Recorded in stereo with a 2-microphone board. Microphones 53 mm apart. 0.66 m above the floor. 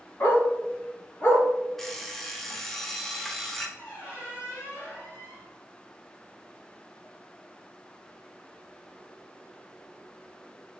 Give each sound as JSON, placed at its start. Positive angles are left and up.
{"t": 0.2, "sound": "a dog barking", "side_deg": 50, "distance_m": 1.6}
{"t": 1.8, "sound": "an alarm clock", "side_deg": 5, "distance_m": 0.5}
{"t": 3.8, "sound": "a squeak", "side_deg": 55, "distance_m": 1.9}